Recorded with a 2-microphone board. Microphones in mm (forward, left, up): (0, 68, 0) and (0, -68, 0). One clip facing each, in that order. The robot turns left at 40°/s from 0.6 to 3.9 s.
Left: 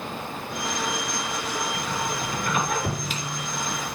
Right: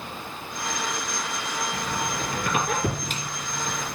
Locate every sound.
1.7 s a squeak: 80° right, 3 m; by 3.9 s 15° right (ahead or behind), 3 m